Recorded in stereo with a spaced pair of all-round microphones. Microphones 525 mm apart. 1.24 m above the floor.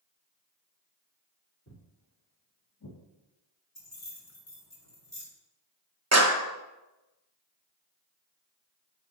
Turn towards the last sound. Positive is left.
turn(degrees=-30)  # may be behind; listen again after turning